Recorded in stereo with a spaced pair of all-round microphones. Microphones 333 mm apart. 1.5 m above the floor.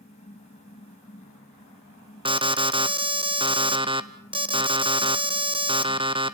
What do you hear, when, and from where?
0.0 s a fan: 20° left (ahead or behind), 3.5 m
2.2 s an alarm: 15° right (ahead or behind), 0.9 m